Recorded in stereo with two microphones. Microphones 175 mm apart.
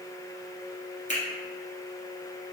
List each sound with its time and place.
1.1 s a finger snap: 40° left (ahead or behind), 1.7 m